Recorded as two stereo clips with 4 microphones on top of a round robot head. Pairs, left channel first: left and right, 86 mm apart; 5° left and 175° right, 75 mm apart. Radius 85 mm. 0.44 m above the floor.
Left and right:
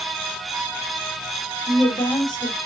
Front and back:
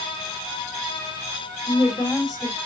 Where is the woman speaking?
50° left, 3 m.